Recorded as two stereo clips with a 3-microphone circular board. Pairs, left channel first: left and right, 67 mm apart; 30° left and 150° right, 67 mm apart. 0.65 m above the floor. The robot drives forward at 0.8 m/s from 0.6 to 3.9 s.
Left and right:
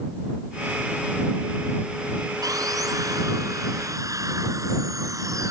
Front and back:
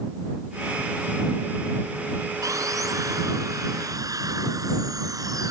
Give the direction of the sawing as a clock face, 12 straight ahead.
4 o'clock.